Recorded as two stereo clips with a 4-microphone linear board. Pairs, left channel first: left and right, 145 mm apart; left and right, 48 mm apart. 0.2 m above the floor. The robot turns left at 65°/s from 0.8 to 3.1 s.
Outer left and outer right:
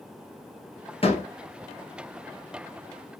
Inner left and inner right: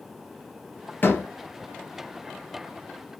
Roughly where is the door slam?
Left.